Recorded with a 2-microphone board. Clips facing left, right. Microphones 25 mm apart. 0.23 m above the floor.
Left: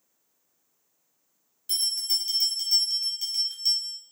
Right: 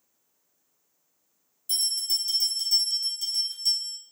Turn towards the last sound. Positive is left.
turn(degrees=25)  # may be behind; listen again after turning